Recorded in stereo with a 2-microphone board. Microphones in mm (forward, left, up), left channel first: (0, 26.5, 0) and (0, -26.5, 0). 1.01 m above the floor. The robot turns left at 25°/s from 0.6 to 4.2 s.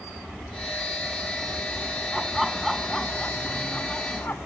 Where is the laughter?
170° right; by 4.4 s 140° left.